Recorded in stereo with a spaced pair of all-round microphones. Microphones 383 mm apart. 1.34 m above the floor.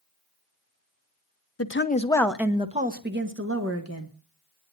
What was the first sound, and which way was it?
A woman speaking, 40° left (ahead or behind).